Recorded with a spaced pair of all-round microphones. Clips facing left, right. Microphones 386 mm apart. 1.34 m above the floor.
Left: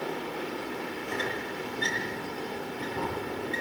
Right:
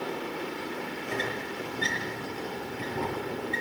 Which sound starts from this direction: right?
A squeak, at 1.1 s.